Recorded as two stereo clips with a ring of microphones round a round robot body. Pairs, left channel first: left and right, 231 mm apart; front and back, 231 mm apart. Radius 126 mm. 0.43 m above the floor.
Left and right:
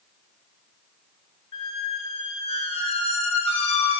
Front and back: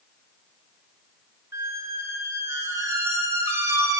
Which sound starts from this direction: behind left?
A squeak, at 1.5 s.